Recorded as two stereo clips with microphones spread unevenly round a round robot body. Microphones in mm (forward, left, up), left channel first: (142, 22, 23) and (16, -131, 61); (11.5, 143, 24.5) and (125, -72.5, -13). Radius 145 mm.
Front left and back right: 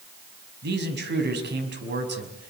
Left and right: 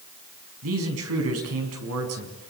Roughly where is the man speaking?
Right.